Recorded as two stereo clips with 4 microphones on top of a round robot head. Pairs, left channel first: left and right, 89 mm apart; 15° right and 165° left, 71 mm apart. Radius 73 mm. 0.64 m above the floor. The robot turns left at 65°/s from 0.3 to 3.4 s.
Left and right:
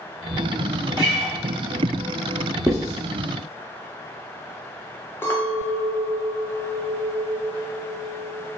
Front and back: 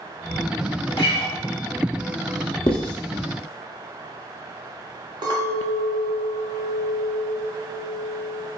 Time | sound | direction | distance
1.0 | a guitar | 45° right | 0.5 m
2.7 | writing | 25° right | 0.8 m
5.2 | a clink | 155° left | 0.9 m